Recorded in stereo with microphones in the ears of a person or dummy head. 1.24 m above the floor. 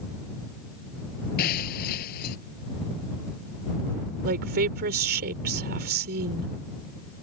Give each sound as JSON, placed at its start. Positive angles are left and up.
{"t": 1.4, "sound": "breaking glass", "side_deg": 50}
{"t": 4.2, "sound": "a woman speaking", "side_deg": -50}